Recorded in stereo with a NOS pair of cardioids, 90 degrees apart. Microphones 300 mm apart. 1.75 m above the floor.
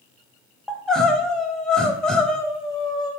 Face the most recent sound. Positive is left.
turn(degrees=0)